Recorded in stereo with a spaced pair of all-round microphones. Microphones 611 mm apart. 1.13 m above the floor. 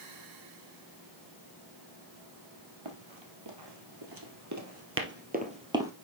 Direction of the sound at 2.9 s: 50° right (ahead or behind).